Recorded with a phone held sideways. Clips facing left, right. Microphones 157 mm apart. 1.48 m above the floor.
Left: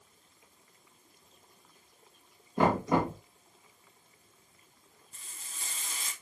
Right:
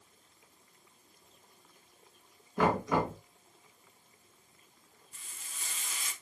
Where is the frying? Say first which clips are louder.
Left 1 dB; 35° left (ahead or behind), 0.8 m.